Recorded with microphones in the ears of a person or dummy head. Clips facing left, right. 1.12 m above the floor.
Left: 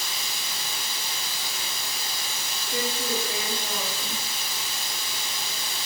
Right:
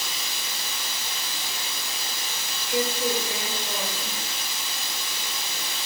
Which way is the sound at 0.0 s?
60° right (ahead or behind).